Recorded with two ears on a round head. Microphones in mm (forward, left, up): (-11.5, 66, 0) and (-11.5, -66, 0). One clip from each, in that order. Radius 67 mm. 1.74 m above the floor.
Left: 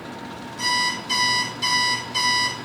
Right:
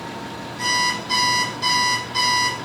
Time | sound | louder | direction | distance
0.6 | an alarm clock | right 2 dB | 25° left (ahead or behind) | 3 m